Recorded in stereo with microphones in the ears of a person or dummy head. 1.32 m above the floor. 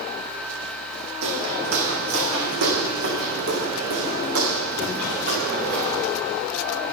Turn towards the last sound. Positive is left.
turn(degrees=-80)